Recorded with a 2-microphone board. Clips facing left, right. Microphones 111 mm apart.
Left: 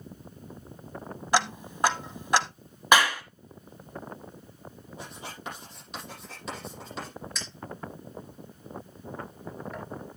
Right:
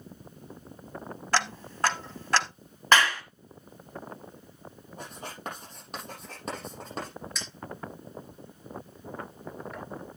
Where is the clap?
15° left (ahead or behind), 1.4 m.